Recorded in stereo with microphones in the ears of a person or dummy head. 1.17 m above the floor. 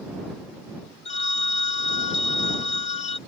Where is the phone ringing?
35° left (ahead or behind).